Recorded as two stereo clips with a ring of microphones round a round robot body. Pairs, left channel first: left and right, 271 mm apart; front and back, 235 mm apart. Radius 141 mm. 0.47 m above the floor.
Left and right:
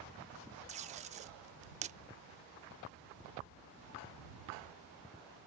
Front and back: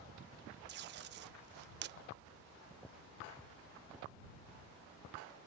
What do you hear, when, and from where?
0.7 s tape being pulled: 150° right